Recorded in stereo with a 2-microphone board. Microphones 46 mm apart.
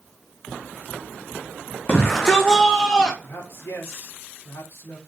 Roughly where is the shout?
Left.